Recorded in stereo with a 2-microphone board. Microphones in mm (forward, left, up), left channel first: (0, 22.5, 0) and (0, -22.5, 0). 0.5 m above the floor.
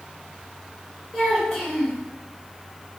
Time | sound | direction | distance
1.1 | a child speaking | 5° left (ahead or behind) | 1.9 m